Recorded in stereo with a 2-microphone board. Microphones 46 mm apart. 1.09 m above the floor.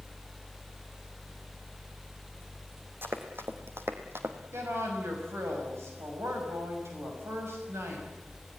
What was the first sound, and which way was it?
Running footsteps, 55° right (ahead or behind).